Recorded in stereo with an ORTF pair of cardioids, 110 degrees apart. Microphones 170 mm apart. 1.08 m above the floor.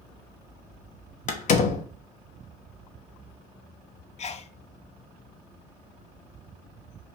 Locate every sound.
1.3 s a door slam: 50° left, 0.7 m
4.2 s a sneeze: 40° left, 0.5 m